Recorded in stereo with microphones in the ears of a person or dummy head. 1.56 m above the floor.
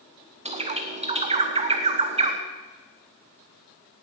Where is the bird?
35° right (ahead or behind), 1.0 m.